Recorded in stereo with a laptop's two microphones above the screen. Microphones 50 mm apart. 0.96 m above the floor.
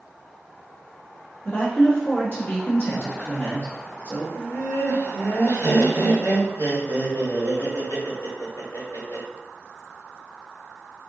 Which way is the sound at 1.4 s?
40° left (ahead or behind).